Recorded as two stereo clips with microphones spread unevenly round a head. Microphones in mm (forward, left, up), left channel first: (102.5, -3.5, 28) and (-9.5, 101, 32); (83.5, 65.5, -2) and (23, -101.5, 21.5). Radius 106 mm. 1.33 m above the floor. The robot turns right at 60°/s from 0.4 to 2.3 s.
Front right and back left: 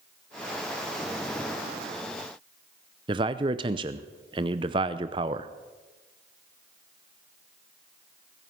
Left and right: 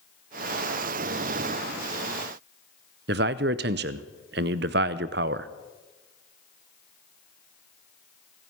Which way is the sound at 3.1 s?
155° right.